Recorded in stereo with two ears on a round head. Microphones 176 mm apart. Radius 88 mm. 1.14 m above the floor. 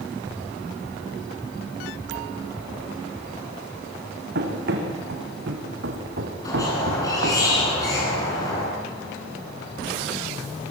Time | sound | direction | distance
4.3 | running footsteps | 55° right (ahead or behind) | 6.5 m
6.5 | a squeak | 20° left (ahead or behind) | 10 m